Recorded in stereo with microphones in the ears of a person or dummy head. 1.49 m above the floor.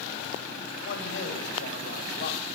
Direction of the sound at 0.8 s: 85° left.